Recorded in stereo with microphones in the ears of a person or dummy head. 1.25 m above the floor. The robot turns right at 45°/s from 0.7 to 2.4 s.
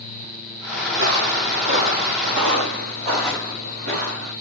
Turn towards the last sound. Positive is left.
turn(degrees=-40)  # may be behind; listen again after turning